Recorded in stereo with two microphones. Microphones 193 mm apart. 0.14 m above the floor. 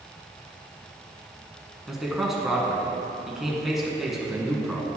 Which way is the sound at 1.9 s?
Centre (ahead or behind).